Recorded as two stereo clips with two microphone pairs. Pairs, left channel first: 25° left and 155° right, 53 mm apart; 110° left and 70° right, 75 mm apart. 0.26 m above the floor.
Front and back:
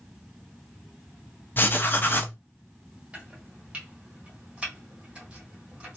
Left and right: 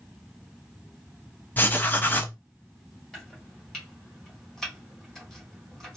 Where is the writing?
55° left, 0.6 m.